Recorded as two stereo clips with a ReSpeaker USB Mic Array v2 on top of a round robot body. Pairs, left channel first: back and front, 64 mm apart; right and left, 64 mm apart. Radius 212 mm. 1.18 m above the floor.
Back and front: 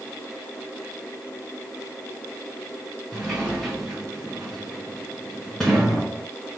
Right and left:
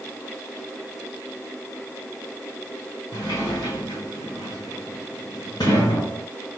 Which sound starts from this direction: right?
A sliding door, at 3.1 s.